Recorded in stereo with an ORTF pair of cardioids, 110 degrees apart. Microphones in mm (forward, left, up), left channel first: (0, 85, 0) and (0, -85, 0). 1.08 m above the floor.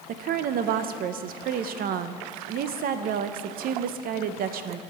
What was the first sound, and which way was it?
A woman speaking, 65° right.